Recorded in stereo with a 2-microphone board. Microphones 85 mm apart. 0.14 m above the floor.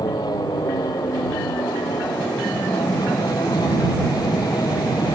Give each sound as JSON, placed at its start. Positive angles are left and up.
{"t": 0.0, "sound": "an aircraft", "side_deg": 50}